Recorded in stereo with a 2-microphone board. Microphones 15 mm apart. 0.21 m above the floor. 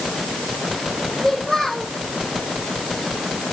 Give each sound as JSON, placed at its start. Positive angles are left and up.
{"t": 1.2, "sound": "a child speaking", "side_deg": 40, "distance_m": 7.0}